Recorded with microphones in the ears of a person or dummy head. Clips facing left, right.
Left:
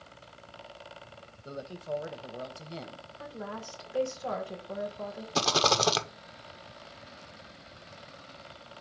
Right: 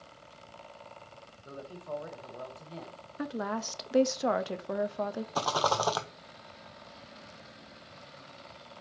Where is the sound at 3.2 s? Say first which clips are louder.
Right 7 dB; 85° right, 0.7 m.